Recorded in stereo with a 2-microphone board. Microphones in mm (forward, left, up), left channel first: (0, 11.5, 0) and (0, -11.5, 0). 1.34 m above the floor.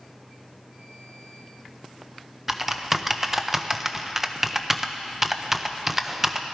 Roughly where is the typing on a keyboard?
Centre.